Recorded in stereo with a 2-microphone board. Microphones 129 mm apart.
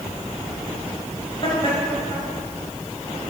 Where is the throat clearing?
No throat clearing in this recording.